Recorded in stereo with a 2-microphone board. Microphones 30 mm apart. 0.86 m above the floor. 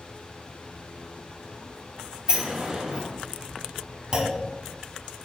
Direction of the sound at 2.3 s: 30° right (ahead or behind).